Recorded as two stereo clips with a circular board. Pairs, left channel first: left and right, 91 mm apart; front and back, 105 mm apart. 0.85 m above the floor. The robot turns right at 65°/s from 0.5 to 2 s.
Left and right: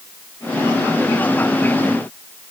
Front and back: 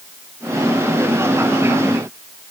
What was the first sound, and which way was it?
Only background noise.